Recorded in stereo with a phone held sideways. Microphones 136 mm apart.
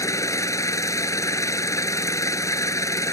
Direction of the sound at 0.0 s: 20° left (ahead or behind).